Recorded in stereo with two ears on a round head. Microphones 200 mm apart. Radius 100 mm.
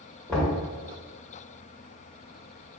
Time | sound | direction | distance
0.3 | knocking | 5° left (ahead or behind) | 1.6 m